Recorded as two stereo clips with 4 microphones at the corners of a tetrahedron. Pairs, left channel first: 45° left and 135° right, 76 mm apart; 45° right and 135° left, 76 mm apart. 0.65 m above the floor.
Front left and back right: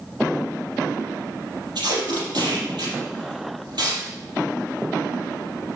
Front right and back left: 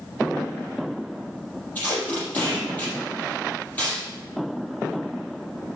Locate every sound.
1.8 s tape being pulled: 115° right, 5.5 m